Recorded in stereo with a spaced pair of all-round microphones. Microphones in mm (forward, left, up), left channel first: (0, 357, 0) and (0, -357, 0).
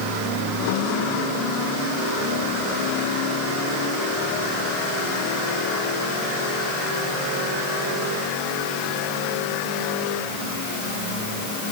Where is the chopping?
I don't hear chopping.